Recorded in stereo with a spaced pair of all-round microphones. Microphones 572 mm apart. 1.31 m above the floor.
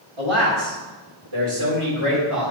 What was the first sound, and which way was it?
A man speaking, 65° right (ahead or behind).